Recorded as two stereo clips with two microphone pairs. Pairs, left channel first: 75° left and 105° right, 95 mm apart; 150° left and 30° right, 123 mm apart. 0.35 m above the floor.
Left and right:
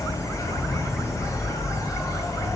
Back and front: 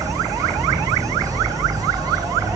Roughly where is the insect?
Ahead left.